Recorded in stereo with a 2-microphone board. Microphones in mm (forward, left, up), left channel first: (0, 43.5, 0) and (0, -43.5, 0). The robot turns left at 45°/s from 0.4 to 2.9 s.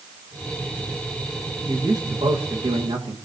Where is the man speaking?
35° right, 2.5 m; by 3.1 s 90° right, 2.5 m.